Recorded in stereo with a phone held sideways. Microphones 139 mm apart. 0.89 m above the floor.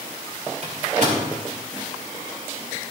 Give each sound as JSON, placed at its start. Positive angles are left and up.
{"t": 0.6, "sound": "a microwave", "side_deg": -60, "distance_m": 2.5}